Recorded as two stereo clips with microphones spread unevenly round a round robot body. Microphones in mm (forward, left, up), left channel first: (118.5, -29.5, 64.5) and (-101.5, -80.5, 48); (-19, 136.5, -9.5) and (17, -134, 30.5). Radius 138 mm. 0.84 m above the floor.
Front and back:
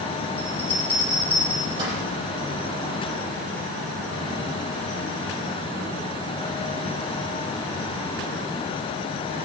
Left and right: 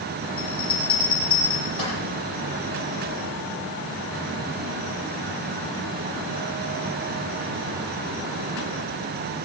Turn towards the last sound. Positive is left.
turn(degrees=125)